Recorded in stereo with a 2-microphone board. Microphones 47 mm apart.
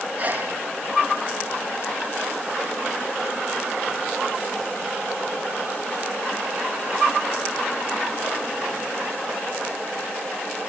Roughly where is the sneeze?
Right.